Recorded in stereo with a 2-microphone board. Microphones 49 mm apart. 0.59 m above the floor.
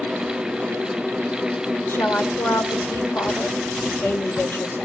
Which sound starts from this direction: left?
A woman speaking, at 1.9 s.